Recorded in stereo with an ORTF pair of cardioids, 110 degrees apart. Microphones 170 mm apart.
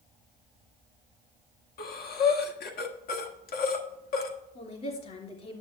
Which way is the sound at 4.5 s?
40° left.